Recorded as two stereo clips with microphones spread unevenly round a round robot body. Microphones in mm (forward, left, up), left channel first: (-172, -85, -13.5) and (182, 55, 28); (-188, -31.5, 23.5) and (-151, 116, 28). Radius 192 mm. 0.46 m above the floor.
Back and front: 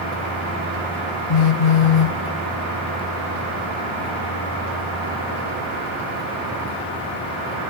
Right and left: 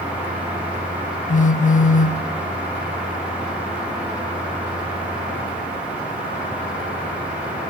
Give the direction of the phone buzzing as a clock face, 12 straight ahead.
5 o'clock.